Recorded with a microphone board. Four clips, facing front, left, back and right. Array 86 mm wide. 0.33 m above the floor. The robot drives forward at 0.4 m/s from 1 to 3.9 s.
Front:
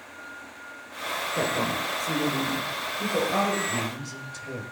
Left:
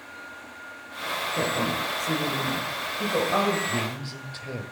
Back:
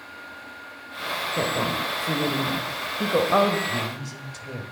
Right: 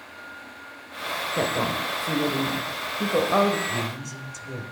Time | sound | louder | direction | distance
1.4 | a woman speaking | right 2 dB, back 1 dB | 100° right | 1.1 m
3.7 | a man speaking | even, back 1 dB | 85° left | 1.3 m